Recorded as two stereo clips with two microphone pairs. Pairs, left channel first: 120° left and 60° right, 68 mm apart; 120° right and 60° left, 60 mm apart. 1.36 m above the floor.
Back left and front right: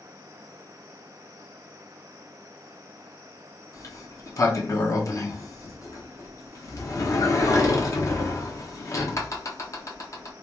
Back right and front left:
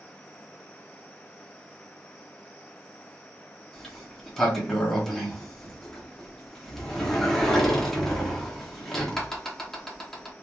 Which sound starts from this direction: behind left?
A sliding door, at 3.7 s.